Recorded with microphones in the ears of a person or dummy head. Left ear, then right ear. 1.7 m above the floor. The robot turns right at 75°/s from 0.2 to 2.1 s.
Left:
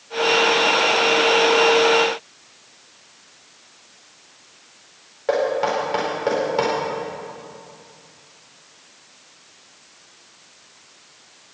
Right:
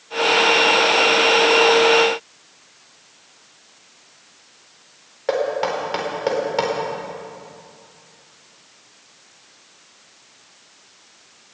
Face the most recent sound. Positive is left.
turn(degrees=-15)  # may be behind; listen again after turning